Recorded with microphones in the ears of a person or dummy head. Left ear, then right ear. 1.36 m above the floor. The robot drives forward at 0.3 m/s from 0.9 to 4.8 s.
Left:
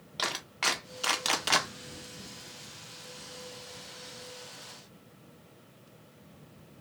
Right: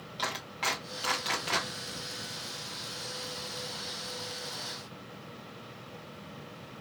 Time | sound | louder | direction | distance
0.2 | a clap | left 2 dB | 30° left (ahead or behind) | 1.0 m